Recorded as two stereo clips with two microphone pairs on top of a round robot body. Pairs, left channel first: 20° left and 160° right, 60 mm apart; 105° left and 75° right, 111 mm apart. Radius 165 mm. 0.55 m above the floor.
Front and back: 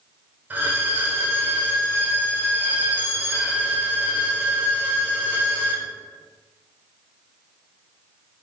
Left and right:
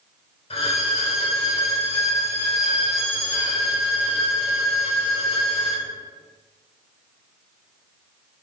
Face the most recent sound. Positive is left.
turn(degrees=145)